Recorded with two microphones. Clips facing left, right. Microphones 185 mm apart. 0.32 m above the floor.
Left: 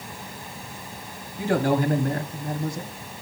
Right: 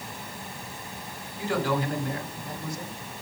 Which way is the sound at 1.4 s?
55° left (ahead or behind).